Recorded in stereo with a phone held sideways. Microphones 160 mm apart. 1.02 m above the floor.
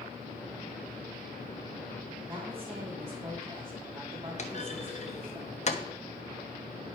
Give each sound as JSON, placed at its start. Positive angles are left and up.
{"t": 2.3, "sound": "a woman speaking", "side_deg": -25, "distance_m": 2.5}
{"t": 4.4, "sound": "a clunk", "side_deg": 45, "distance_m": 1.2}